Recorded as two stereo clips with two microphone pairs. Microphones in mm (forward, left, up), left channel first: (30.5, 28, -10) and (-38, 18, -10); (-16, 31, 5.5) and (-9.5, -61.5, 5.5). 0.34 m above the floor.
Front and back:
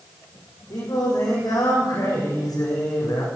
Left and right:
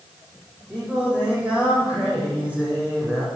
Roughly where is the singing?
Ahead.